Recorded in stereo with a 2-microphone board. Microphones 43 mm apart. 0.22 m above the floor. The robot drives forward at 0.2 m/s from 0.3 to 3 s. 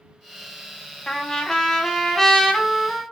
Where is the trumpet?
15° left (ahead or behind), 0.6 m; by 3.0 s 10° left (ahead or behind), 0.9 m.